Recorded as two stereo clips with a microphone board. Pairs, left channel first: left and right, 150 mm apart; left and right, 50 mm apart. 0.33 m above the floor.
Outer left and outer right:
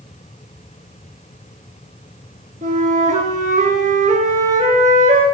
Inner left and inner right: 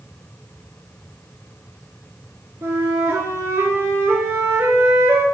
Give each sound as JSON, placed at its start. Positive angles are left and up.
{"t": 2.6, "sound": "a flute", "side_deg": -60, "distance_m": 0.7}